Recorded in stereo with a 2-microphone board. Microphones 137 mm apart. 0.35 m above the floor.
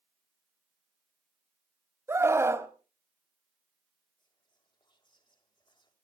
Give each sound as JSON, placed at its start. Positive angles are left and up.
{"t": 2.1, "sound": "a scream", "side_deg": -20, "distance_m": 1.8}
{"t": 4.2, "sound": "whispering", "side_deg": 35, "distance_m": 1.8}